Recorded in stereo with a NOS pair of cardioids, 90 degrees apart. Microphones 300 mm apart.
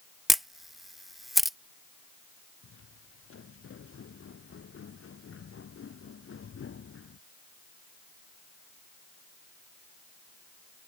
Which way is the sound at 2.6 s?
45° left.